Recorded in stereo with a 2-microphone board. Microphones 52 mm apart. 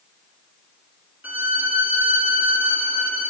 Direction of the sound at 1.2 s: 35° right (ahead or behind).